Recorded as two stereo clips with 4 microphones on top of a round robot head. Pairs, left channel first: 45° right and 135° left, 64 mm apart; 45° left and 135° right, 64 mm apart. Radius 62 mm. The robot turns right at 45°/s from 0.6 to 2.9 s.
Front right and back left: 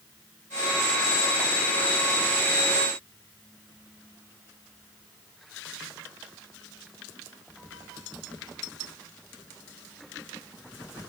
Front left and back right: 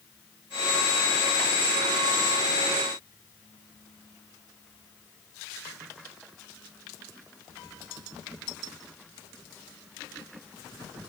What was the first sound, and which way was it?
Only background noise.